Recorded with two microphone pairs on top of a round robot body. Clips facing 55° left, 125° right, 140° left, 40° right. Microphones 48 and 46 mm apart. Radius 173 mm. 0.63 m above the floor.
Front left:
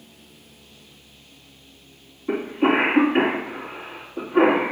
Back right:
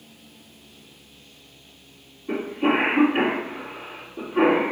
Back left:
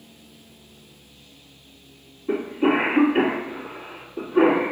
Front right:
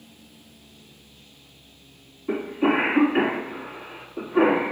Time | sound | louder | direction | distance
2.3 | a cough | front left 2 dB, back left 1 dB | 15° left | 2.5 m